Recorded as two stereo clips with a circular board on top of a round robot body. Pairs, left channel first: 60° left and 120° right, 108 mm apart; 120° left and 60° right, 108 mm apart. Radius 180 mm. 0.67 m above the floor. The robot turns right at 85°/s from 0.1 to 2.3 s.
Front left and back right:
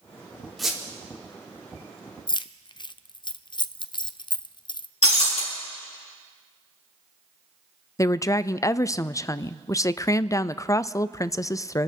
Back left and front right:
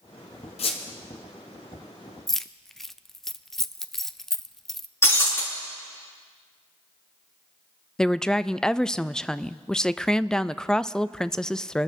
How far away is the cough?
I don't hear a cough.